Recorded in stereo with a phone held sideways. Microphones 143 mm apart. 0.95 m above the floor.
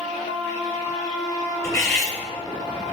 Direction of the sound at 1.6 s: 25° left (ahead or behind).